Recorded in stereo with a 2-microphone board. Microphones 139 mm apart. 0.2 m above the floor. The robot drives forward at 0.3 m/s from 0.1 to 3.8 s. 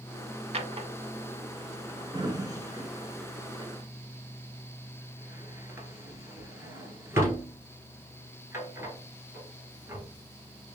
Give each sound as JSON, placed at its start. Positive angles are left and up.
{"t": 0.5, "sound": "a drawer", "side_deg": -50, "distance_m": 0.5}